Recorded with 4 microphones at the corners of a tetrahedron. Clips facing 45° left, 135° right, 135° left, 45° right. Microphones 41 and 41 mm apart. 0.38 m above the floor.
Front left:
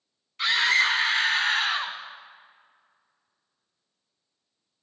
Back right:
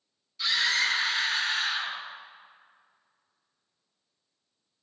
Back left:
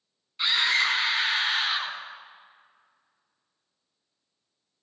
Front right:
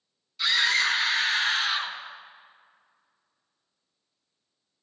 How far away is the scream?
About 4 m.